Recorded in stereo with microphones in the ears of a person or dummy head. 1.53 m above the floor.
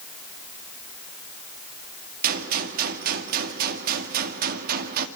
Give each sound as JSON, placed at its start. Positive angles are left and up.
{"t": 2.2, "sound": "a gunshot", "side_deg": -50, "distance_m": 2.0}